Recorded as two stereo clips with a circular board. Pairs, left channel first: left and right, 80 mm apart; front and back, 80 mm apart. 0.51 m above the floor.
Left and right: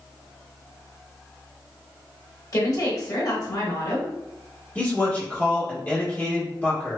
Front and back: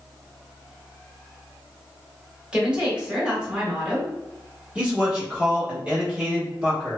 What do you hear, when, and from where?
2.5 s a woman speaking: 105° left, 1.1 m
4.8 s a man speaking: 125° left, 1.1 m